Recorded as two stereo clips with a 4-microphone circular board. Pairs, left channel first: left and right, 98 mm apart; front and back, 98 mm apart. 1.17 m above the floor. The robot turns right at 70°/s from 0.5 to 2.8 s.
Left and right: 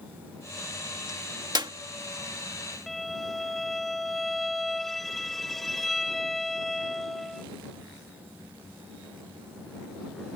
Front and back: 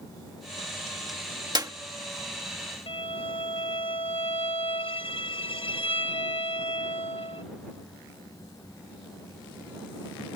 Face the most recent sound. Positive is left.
turn(degrees=0)